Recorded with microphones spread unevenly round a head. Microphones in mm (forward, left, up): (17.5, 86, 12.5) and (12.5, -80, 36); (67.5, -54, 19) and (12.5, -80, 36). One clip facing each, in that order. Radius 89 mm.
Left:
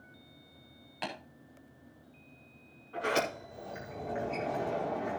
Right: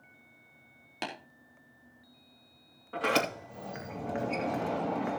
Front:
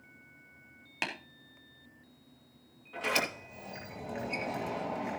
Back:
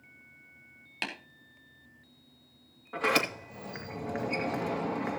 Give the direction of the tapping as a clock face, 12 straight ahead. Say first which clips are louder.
Right 1 dB, front 1 dB; 2 o'clock.